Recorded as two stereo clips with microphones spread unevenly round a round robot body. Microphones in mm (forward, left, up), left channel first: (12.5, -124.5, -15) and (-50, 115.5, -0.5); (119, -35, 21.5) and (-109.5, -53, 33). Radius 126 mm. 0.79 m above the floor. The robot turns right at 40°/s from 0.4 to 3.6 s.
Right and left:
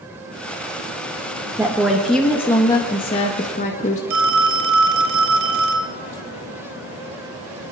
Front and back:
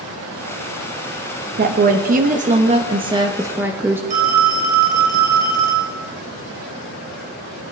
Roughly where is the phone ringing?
Behind left.